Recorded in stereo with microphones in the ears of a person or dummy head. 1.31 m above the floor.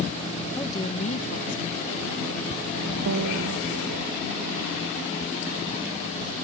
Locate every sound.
0.6 s a woman speaking: 10° left (ahead or behind); by 4.1 s 75° left (ahead or behind)
3.1 s a piano: 75° right (ahead or behind)